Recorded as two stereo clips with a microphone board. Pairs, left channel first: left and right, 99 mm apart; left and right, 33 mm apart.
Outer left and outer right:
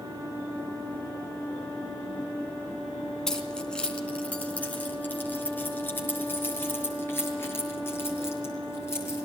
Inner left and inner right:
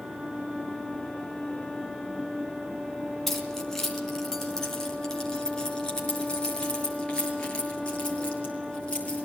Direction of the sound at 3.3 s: 5° left (ahead or behind).